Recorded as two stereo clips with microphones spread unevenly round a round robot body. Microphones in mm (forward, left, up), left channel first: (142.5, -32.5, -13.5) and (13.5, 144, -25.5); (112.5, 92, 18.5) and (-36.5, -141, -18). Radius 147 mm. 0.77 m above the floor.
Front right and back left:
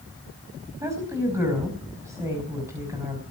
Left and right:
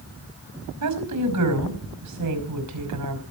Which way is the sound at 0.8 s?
155° right.